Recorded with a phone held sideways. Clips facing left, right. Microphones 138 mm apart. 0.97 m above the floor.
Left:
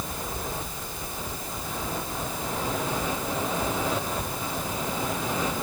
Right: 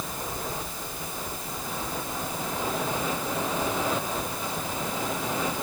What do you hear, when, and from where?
Only background noise.